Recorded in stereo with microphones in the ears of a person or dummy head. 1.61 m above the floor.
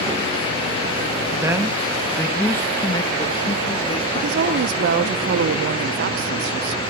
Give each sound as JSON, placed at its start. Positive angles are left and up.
{"t": 1.4, "sound": "a man speaking", "side_deg": -20, "distance_m": 1.9}
{"t": 4.1, "sound": "a woman speaking", "side_deg": -60, "distance_m": 0.9}